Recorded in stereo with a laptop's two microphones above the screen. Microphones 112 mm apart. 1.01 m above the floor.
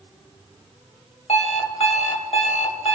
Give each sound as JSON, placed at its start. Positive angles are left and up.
{"t": 1.3, "sound": "an alarm clock", "side_deg": 75, "distance_m": 1.9}